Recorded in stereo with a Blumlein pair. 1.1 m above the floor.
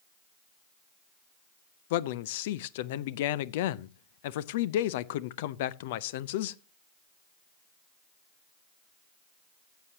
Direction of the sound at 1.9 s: 50° left.